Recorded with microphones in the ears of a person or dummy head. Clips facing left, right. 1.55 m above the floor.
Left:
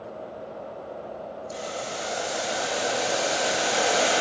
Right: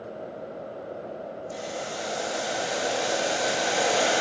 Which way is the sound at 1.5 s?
Centre (ahead or behind).